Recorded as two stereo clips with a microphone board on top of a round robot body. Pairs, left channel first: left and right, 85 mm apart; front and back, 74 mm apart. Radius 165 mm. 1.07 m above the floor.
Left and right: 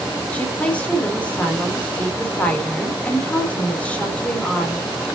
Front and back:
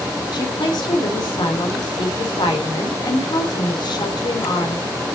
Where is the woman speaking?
15° left, 3.5 m.